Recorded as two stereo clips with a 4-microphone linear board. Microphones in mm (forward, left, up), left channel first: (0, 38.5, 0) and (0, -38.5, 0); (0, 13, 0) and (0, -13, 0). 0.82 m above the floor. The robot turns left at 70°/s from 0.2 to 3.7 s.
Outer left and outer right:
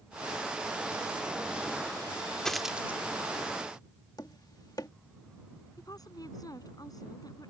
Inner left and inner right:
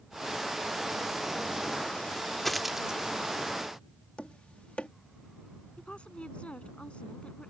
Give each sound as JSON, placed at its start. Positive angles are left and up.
{"t": 2.5, "sound": "a dropped coin", "side_deg": 10}
{"t": 4.2, "sound": "tapping", "side_deg": 60}
{"t": 5.8, "sound": "a woman speaking", "side_deg": 55}